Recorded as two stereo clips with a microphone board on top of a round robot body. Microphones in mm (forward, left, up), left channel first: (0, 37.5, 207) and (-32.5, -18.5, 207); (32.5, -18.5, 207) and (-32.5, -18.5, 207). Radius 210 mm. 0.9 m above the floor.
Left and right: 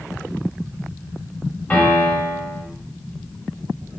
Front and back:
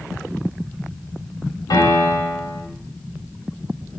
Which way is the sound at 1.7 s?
Straight ahead.